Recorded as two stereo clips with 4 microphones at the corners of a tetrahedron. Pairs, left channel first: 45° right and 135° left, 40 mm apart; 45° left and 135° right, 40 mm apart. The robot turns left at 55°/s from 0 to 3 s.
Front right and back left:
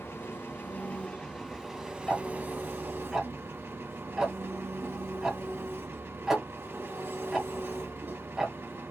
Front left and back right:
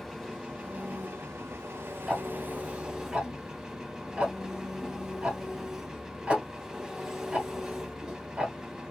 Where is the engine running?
45° right, 0.7 m; by 8.9 s 150° left, 0.7 m.